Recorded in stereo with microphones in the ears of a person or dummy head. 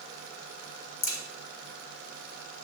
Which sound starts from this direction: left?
A crack, at 1.0 s.